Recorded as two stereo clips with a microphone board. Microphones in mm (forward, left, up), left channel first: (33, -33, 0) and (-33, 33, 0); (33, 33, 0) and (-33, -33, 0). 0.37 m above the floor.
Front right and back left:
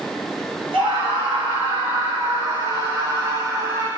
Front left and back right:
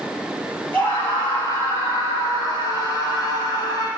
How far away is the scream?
About 10 m.